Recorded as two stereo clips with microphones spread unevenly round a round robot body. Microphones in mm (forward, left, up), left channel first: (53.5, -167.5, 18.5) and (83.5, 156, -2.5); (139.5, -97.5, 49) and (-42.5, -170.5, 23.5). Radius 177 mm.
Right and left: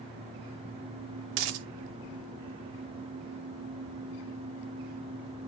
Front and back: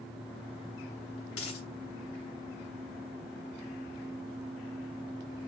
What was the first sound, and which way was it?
A dropped coin, 70° left.